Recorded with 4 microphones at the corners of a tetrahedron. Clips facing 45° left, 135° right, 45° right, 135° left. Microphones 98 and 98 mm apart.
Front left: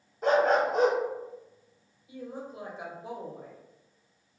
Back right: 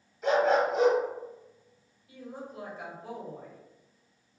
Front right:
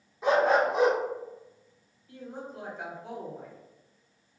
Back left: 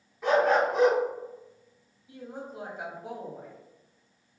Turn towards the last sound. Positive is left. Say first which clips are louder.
# front left 3 dB, even
turn(degrees=80)